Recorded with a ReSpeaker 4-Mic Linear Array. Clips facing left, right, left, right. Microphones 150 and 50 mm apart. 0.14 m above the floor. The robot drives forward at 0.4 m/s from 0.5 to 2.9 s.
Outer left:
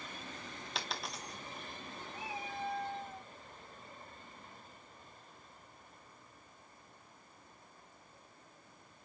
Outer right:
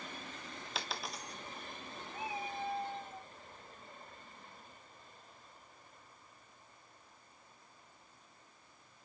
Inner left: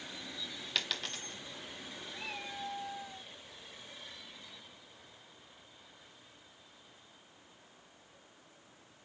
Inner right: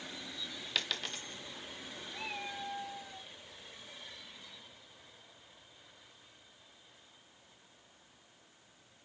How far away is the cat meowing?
About 3 m.